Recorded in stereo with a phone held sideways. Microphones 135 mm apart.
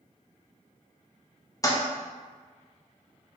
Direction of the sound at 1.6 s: 25° left (ahead or behind).